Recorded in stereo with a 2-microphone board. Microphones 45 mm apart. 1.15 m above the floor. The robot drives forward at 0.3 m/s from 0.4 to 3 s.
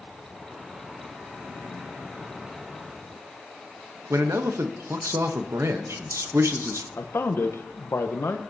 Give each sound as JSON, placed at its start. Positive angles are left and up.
{"t": 4.1, "sound": "a man speaking", "side_deg": -80, "distance_m": 0.9}
{"t": 7.0, "sound": "a man speaking", "side_deg": 65, "distance_m": 0.9}